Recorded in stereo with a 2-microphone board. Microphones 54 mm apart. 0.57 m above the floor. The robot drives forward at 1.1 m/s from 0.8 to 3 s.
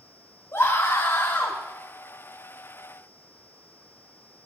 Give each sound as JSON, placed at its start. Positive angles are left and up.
{"t": 0.5, "sound": "a scream", "side_deg": 75, "distance_m": 4.0}